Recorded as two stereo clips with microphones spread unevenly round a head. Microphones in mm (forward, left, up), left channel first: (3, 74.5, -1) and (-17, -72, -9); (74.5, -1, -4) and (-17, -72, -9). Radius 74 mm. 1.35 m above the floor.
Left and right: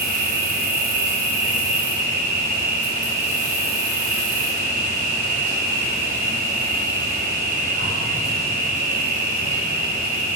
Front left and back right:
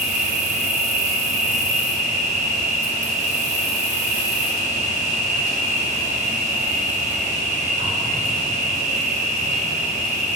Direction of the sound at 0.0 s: 125° right.